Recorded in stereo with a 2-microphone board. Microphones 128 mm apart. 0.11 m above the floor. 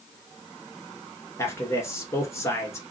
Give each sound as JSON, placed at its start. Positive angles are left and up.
{"t": 1.4, "sound": "a man speaking", "side_deg": 20, "distance_m": 1.3}